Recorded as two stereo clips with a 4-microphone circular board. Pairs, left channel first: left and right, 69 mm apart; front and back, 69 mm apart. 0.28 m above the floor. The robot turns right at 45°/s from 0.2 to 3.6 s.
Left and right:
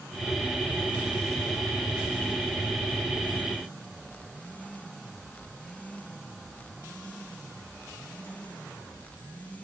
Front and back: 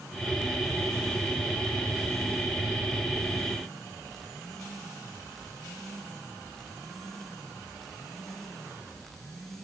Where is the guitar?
No guitar in this recording.